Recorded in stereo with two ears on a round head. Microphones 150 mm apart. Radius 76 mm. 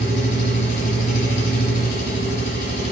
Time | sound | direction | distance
0.0 | an engine running | 60° left (ahead or behind) | 1.3 m